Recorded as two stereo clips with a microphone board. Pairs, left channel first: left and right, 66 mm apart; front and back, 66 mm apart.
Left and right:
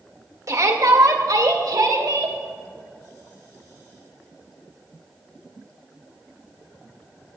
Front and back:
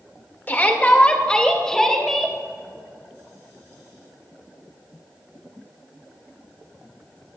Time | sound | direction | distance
0.5 | a shout | 60° right | 2 m